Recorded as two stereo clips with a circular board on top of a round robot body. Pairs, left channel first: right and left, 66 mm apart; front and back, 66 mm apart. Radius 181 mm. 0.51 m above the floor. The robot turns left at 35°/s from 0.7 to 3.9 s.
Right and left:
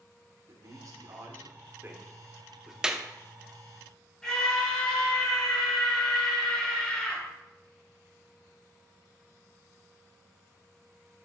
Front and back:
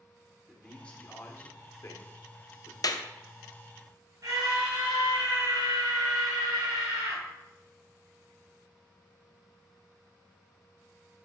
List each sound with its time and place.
0.5 s a man speaking: 75° left, 2 m; by 2.7 s 5° left, 2 m
2.8 s a clap: 10° left, 0.7 m; by 3.0 s 5° left, 0.7 m
4.2 s a scream: 170° right, 3 m